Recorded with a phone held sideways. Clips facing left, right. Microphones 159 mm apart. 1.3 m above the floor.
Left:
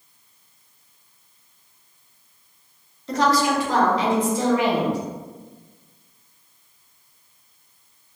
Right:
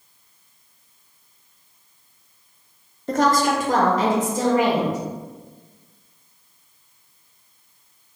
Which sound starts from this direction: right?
A woman speaking, at 3.1 s.